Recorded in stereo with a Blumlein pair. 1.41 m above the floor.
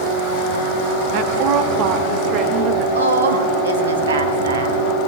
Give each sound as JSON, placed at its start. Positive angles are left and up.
{"t": 1.1, "sound": "a woman speaking", "azimuth_deg": -45, "distance_m": 1.1}
{"t": 3.0, "sound": "a woman speaking", "azimuth_deg": -70, "distance_m": 1.6}